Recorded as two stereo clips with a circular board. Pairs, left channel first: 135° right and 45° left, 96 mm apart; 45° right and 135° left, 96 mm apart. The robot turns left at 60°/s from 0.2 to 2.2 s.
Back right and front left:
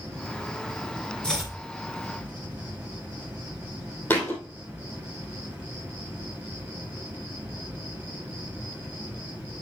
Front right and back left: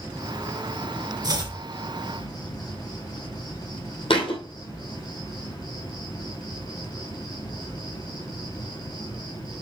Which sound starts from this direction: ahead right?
A thud, at 4.1 s.